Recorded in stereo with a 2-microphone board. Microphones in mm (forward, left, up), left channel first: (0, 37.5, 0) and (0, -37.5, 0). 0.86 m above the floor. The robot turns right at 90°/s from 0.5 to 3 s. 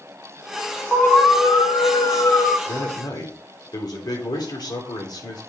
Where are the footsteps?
No footsteps in this recording.